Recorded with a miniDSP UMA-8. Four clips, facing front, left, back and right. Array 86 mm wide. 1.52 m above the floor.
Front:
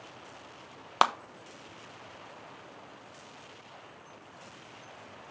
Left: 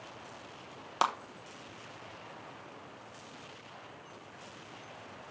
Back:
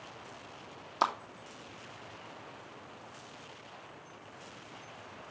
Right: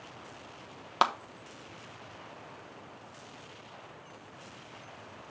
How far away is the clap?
About 1.0 m.